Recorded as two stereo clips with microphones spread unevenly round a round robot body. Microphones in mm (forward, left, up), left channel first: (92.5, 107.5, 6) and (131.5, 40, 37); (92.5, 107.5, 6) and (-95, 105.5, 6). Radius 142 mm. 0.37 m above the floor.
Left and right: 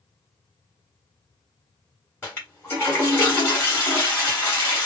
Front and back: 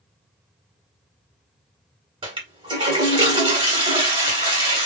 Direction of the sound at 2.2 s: 130° left.